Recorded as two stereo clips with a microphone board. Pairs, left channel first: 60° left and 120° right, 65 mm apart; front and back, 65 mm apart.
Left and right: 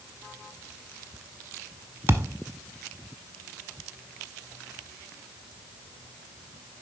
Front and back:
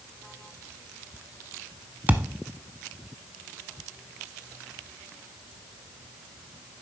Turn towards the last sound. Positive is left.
turn(degrees=-140)